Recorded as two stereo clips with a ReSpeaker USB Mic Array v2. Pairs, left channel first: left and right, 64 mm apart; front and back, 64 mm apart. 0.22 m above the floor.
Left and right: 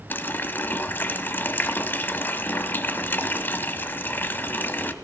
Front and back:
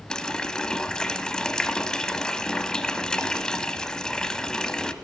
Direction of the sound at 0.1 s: 70° left.